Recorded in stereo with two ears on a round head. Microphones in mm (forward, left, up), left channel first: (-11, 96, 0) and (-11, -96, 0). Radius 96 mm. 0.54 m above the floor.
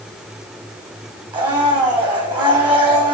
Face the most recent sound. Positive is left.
turn(degrees=-20)  # may be behind; listen again after turning